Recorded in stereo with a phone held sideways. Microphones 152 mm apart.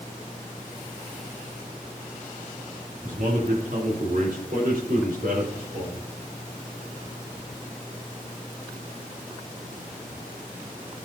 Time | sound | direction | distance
3.0 | a man speaking | 65° right (ahead or behind) | 2.5 m